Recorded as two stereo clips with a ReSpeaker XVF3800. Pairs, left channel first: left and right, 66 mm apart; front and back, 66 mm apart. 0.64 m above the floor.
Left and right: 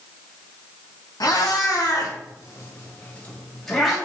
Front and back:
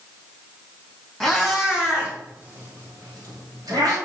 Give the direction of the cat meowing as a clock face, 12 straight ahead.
9 o'clock.